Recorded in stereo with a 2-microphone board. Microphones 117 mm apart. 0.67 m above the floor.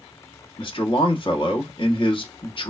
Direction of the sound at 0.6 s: 45° left (ahead or behind).